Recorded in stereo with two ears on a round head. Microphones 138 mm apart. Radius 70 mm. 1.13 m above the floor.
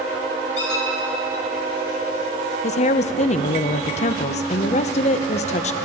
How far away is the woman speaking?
About 0.5 m.